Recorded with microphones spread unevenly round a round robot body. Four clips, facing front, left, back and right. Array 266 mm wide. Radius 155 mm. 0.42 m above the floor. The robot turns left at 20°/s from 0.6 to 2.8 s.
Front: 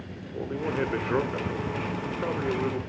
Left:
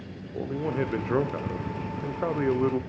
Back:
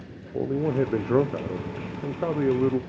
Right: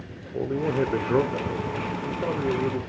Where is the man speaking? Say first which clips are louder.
Right 4 dB, back 5 dB; 155° right, 1.0 m; by 2.8 s 160° left, 1.0 m.